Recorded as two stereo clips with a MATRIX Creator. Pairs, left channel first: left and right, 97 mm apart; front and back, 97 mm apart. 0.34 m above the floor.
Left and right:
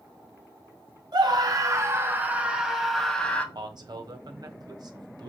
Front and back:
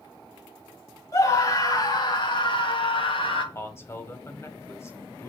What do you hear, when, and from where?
1.1 s a scream: 50° right, 2 m; by 3.5 s 15° left, 2 m
3.5 s a man speaking: 55° right, 1.7 m